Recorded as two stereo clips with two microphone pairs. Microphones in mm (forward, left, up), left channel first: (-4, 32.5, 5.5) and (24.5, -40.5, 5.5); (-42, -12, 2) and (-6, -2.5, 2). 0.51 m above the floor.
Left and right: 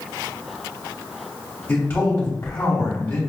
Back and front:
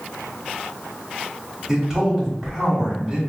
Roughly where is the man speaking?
Left.